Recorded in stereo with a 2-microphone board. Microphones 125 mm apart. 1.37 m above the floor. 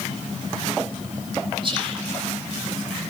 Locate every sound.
1.6 s whispering: 40° right (ahead or behind), 8 m